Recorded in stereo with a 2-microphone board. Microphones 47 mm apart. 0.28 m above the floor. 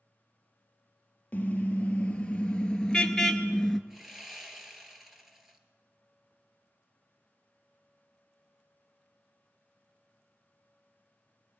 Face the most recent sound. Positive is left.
turn(degrees=-5)  # may be behind; listen again after turning